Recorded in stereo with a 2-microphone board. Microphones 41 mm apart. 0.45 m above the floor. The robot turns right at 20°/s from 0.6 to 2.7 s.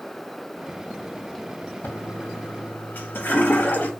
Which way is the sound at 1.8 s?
70° left (ahead or behind).